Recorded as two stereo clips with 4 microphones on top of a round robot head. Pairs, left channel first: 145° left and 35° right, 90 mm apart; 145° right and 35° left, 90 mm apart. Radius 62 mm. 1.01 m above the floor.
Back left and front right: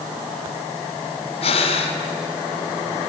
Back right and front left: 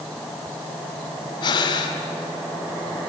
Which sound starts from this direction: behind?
Breathing, at 1.4 s.